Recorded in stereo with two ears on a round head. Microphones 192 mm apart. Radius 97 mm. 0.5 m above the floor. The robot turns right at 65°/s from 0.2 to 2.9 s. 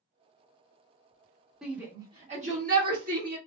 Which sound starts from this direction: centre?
A shout, at 1.6 s.